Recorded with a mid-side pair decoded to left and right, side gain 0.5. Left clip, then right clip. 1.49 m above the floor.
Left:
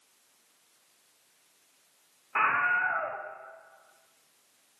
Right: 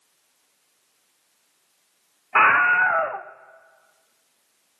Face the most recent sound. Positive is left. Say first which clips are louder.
# right 10 dB
turn(degrees=-60)